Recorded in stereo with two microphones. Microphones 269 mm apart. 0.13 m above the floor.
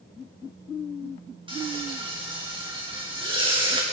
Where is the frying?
20° right (ahead or behind), 7.5 m.